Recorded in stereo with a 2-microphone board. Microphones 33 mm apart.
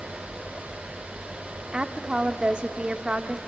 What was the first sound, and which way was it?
A woman speaking, 30° right (ahead or behind).